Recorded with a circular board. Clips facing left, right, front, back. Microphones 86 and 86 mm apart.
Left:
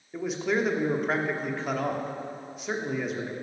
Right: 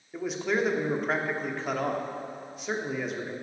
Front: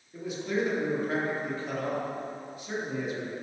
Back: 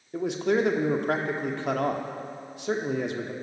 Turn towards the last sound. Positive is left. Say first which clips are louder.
# left 1 dB, back 6 dB
turn(degrees=180)